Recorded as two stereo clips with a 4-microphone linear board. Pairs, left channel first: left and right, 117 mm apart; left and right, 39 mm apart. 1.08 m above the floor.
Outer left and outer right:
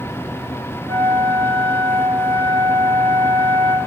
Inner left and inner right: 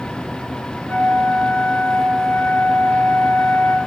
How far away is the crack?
No crack in this recording.